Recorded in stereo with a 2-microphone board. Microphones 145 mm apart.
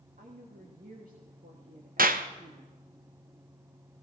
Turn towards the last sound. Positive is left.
turn(degrees=-75)  # may be behind; listen again after turning